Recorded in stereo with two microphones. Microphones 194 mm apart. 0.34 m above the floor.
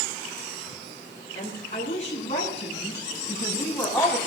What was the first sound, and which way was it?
A woman speaking, 45° left (ahead or behind).